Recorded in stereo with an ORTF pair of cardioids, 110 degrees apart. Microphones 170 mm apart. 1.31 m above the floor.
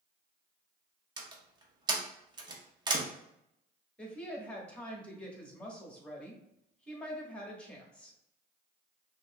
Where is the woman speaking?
5° left, 1.5 m.